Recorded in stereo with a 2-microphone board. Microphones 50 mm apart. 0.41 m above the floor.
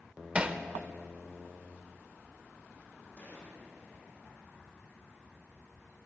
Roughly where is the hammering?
Right.